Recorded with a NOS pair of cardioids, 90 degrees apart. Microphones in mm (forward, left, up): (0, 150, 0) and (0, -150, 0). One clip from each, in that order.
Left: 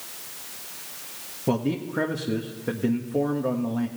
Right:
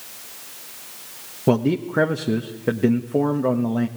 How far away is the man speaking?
About 1.4 m.